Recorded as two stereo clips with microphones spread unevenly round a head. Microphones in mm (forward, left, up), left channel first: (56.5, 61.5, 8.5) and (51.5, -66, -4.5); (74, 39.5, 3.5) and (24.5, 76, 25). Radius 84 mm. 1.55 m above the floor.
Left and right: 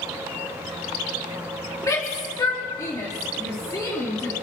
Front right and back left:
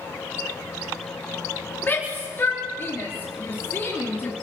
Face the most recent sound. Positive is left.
turn(degrees=20)